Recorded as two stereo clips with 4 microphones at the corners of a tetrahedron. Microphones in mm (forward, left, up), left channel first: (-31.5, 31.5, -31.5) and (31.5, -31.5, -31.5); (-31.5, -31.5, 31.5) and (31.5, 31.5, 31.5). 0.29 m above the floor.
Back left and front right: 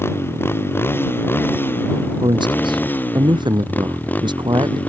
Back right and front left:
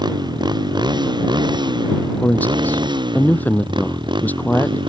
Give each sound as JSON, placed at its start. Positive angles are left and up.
{"t": 0.0, "sound": "a motorcycle", "azimuth_deg": 75}
{"t": 2.2, "sound": "a man speaking", "azimuth_deg": -65}